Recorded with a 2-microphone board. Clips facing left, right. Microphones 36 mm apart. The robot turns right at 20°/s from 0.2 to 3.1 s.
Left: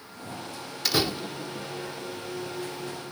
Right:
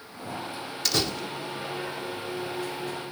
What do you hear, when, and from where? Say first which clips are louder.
0.8 s a door slam: left 2 dB; 10° left (ahead or behind); by 3.1 s 50° left (ahead or behind)